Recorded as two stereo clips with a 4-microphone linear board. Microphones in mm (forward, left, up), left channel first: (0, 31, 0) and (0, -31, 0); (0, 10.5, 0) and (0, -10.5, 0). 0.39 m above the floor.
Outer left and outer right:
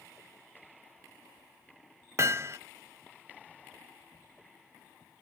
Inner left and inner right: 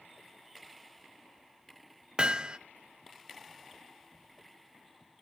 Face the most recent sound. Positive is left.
turn(degrees=-45)  # may be behind; listen again after turning